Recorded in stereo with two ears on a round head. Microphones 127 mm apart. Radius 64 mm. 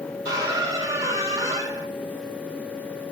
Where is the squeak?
25° right (ahead or behind), 1.3 m.